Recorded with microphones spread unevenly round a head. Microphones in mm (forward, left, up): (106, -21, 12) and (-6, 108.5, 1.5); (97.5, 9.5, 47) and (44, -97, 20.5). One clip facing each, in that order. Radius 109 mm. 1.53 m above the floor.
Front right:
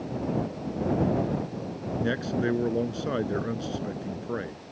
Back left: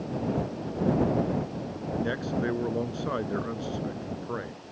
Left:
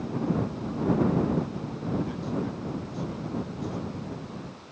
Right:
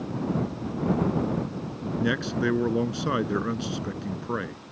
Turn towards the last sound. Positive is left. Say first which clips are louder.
# front right 2 dB, right 5 dB
turn(degrees=-125)